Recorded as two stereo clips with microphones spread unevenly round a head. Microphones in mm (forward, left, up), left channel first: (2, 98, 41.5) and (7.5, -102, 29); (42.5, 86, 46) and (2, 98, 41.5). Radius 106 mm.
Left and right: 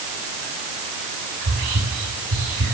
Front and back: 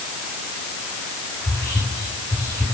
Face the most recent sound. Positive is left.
turn(degrees=-95)